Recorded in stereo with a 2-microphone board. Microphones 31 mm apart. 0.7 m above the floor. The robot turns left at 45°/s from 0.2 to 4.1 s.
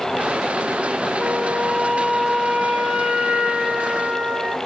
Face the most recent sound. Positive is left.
turn(degrees=-100)